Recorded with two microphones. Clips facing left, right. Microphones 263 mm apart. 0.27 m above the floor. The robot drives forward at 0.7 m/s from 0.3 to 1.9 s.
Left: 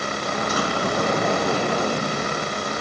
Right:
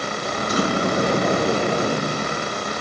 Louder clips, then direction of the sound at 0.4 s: Right 5 dB; 30° right (ahead or behind).